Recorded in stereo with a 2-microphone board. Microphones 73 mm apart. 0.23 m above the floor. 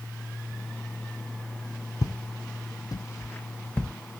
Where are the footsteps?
55° left (ahead or behind), 0.6 m; by 3.9 s 20° left (ahead or behind), 0.9 m.